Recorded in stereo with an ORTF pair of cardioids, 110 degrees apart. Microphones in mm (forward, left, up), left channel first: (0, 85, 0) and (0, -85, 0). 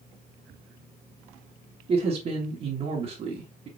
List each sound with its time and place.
1.9 s a man speaking: 40° right, 1.1 m